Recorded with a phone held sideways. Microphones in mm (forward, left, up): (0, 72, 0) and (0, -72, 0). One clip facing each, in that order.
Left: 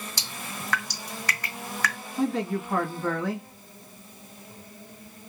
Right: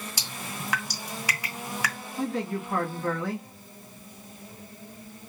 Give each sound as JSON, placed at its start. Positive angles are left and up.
{"t": 0.2, "sound": "dripping", "side_deg": -10, "distance_m": 1.8}
{"t": 2.2, "sound": "a man speaking", "side_deg": 15, "distance_m": 1.4}